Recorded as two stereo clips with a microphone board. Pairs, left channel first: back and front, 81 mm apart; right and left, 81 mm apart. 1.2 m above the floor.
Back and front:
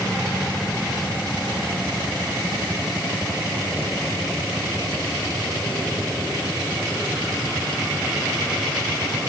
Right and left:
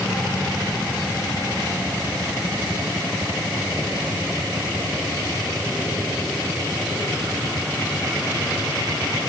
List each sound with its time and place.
Only background noise.